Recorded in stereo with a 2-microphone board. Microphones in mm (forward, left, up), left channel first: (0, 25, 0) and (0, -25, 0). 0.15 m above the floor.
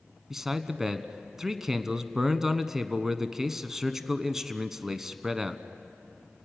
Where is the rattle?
No rattle in this recording.